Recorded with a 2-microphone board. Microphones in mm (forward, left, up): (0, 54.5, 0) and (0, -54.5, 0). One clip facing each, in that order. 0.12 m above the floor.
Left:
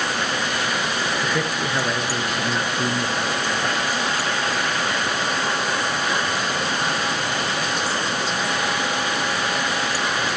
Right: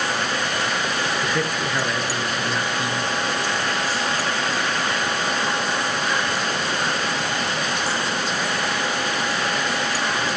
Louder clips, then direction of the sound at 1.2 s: Even; centre (ahead or behind).